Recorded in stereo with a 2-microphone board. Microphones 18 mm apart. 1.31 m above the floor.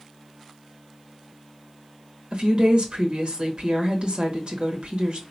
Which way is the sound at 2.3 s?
50° right (ahead or behind).